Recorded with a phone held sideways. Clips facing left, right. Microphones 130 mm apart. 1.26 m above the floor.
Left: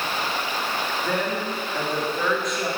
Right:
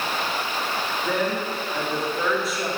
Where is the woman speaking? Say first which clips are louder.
Right 2 dB; 5° right (ahead or behind), 2.5 m.